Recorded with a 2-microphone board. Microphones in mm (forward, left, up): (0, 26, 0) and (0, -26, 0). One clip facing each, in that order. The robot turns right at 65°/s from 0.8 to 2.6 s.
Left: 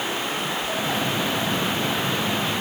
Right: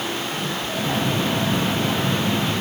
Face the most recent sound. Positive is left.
No sound to turn to.